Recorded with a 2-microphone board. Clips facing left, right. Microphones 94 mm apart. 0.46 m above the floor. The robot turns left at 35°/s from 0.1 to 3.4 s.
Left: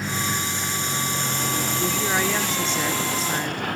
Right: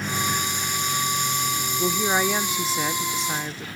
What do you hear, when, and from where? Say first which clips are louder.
0.0 s a vehicle: right 1 dB; 175° left; by 3.8 s 60° left
1.8 s a woman speaking: right 3 dB; 15° right (ahead or behind); by 3.7 s 5° left (ahead or behind)